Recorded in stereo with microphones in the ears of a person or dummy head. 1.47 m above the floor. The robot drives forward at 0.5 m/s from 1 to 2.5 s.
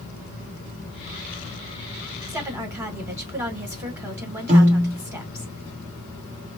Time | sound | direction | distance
2.3 | a woman speaking | 10° right (ahead or behind) | 1.6 m
4.5 | a piano | 35° right (ahead or behind) | 1.0 m